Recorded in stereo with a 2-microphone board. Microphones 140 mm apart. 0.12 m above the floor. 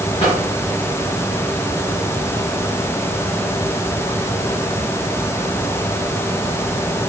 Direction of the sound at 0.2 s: 35° left (ahead or behind).